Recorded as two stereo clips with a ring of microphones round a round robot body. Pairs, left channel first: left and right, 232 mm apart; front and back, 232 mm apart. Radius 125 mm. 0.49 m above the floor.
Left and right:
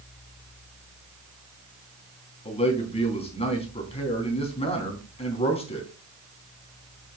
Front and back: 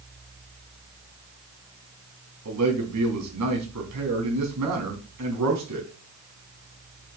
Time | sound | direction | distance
2.5 | a man speaking | 155° left | 3.5 m